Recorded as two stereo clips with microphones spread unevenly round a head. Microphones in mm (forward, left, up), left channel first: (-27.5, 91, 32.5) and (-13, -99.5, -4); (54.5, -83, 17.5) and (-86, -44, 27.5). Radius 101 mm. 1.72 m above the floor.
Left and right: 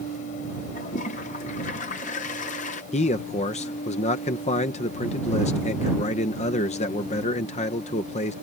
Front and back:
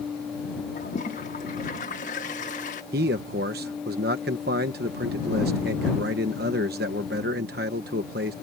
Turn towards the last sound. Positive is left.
turn(degrees=145)